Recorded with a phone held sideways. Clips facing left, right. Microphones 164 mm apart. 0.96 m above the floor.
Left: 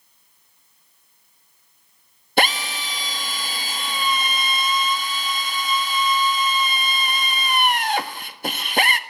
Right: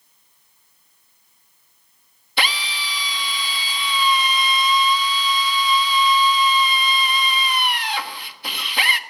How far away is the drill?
About 1.4 m.